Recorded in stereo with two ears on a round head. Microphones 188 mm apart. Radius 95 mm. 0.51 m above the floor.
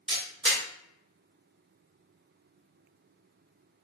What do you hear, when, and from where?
0.1 s a camera shutter: 25° right (ahead or behind), 1.5 m